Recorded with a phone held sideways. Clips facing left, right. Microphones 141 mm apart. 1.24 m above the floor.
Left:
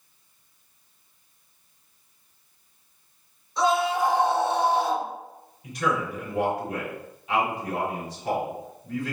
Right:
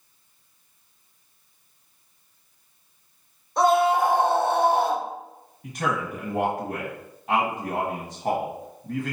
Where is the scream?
55° right (ahead or behind), 0.9 m.